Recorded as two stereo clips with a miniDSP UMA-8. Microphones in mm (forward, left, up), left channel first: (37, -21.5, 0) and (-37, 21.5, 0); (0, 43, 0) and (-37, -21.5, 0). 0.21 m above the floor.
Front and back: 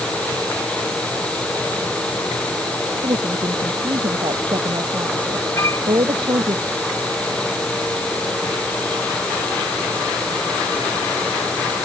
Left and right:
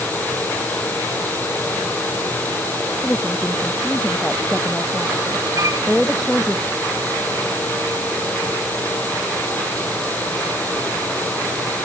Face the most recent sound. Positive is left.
turn(degrees=-80)